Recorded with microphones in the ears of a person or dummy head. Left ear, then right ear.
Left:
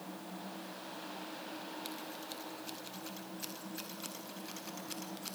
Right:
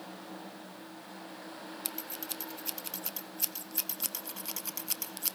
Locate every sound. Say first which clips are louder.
1.9 s scissors: right 2 dB; 40° right (ahead or behind), 0.6 m